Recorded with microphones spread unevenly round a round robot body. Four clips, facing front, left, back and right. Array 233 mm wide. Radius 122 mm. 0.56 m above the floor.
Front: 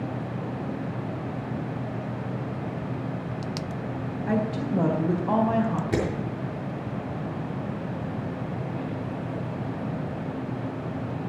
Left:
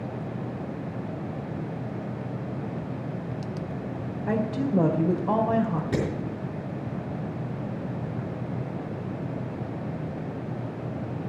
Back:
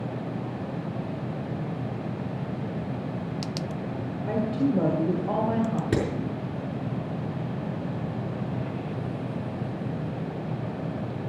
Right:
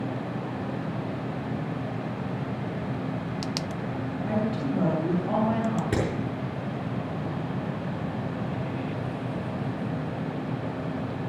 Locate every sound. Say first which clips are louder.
4.3 s a woman speaking: left 2 dB, back 2 dB; 105° left, 2.5 m
5.9 s hammering: left 1 dB, even; 165° right, 4.5 m